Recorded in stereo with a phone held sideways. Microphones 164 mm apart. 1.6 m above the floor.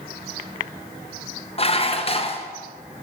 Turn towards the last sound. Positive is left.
turn(degrees=40)  # may be behind; listen again after turning